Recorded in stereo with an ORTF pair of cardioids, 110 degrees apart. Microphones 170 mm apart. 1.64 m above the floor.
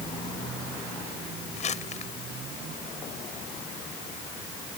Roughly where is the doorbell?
I don't hear a doorbell.